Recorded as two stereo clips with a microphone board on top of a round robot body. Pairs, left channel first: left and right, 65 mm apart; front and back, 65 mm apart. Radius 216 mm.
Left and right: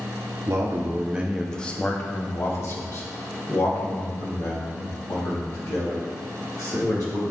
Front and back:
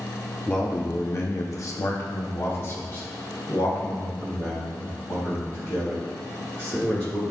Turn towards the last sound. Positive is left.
turn(degrees=65)